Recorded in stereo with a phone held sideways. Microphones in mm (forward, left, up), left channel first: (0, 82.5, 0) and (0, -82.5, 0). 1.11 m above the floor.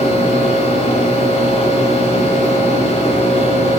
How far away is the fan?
About 2.0 m.